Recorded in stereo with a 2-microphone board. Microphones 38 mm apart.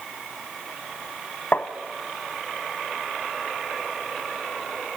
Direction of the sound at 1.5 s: 45° left (ahead or behind).